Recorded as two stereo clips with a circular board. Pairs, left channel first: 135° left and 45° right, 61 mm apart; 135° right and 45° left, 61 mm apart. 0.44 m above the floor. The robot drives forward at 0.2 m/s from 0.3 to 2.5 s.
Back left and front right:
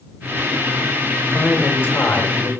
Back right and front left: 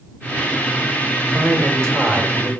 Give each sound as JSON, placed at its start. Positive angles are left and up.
{"t": 1.3, "sound": "a man speaking", "azimuth_deg": 160, "distance_m": 1.3}